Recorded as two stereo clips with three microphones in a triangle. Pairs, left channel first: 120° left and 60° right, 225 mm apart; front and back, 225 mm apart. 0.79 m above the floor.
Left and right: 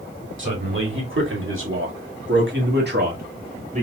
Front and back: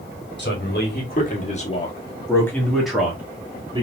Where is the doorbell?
I don't hear a doorbell.